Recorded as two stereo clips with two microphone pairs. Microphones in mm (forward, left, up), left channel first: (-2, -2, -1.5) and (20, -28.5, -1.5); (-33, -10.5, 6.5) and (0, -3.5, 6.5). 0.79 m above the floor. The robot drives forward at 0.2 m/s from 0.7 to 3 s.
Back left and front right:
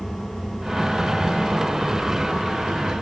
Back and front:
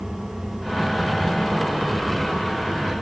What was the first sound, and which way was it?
Only background noise.